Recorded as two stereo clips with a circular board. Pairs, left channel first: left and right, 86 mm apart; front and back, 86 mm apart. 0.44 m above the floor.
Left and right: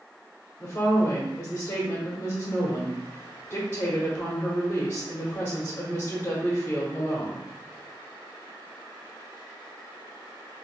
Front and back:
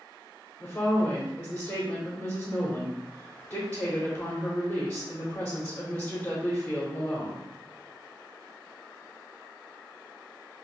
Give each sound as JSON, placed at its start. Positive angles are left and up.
{"t": 0.6, "sound": "a woman speaking", "azimuth_deg": 60, "distance_m": 1.0}